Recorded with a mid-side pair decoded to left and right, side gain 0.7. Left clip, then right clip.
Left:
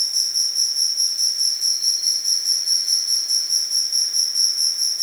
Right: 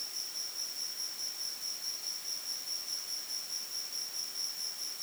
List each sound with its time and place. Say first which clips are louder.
0.0 s an insect: left 19 dB; 60° left